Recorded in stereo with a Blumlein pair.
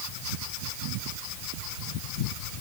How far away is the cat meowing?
No cat meowing in this recording.